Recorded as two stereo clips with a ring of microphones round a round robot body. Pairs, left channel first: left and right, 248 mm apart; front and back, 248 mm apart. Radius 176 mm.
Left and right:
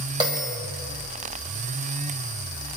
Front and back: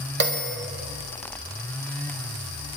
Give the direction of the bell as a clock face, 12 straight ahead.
5 o'clock.